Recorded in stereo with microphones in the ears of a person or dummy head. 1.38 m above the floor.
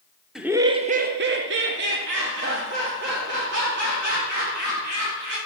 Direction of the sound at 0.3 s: 5° right (ahead or behind).